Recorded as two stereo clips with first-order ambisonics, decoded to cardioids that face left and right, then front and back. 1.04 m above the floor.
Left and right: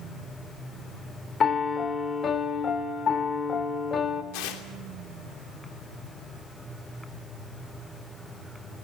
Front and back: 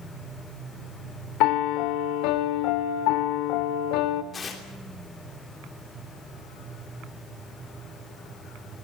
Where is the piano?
25° left, 1.5 m.